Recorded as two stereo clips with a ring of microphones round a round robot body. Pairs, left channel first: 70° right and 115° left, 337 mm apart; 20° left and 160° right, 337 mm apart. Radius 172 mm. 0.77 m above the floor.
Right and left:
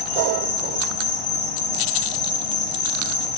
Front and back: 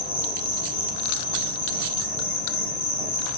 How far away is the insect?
About 1.8 m.